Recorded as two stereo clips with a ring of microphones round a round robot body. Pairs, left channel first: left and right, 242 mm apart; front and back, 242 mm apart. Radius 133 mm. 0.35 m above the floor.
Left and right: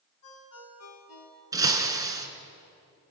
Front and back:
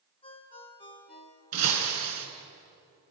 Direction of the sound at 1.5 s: 165° right.